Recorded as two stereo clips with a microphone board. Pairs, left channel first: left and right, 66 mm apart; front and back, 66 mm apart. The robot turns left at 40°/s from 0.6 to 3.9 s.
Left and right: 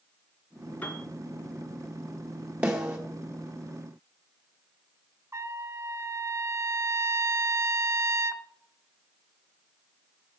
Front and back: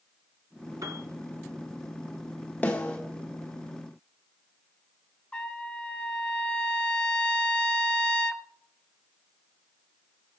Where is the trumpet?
70° right, 0.5 m.